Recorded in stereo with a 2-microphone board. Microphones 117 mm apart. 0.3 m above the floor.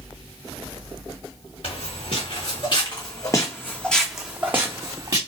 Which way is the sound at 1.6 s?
65° left (ahead or behind).